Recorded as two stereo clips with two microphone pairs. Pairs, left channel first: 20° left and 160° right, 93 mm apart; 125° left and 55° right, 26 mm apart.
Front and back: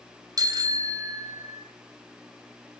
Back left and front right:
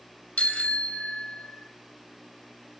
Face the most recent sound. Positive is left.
turn(degrees=145)